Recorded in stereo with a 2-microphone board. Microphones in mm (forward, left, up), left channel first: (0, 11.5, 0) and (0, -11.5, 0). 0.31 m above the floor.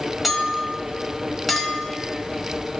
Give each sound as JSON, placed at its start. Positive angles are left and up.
{"t": 0.2, "sound": "a clink", "side_deg": -5, "distance_m": 1.1}